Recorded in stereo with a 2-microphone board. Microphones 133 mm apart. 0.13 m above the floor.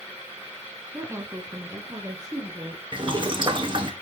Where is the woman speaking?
15° right (ahead or behind), 1.3 m; by 2.8 s 35° right (ahead or behind), 2.5 m.